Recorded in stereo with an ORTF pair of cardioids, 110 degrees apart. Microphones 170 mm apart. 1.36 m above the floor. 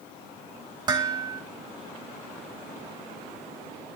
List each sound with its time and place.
0.9 s dishes clattering: 25° right, 2.0 m